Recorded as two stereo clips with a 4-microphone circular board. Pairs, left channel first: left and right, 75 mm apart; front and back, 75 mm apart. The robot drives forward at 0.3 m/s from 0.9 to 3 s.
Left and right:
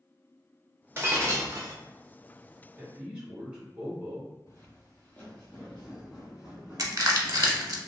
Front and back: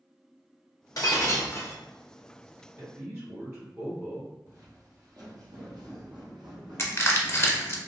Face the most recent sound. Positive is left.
turn(degrees=-55)